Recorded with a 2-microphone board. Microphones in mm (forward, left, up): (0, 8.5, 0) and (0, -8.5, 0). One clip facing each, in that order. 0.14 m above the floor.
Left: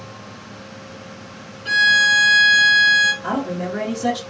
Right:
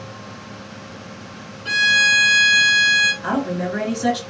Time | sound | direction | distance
1.6 | a violin | 10° right (ahead or behind) | 1.6 m
3.2 | a man speaking | 45° right (ahead or behind) | 2 m